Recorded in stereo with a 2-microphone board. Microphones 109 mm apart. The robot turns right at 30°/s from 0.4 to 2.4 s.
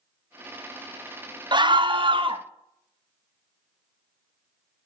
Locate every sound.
1.5 s a scream: 45° right (ahead or behind), 0.6 m; by 2.4 s 50° right (ahead or behind), 0.6 m